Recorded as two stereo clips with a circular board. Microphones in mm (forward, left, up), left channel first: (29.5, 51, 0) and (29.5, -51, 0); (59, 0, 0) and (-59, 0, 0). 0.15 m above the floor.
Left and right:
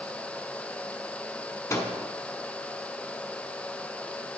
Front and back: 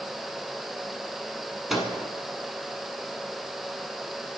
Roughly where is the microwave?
Left.